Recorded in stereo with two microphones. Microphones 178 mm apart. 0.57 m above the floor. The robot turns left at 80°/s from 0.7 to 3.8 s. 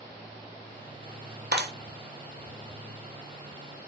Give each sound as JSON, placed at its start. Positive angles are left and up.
{"t": 1.5, "sound": "a clap", "side_deg": -65, "distance_m": 0.9}